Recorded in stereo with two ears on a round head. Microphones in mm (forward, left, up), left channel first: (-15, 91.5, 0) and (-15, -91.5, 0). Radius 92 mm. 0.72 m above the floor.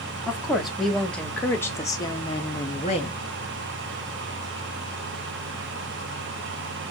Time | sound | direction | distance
0.3 | a woman speaking | 5° right (ahead or behind) | 2.0 m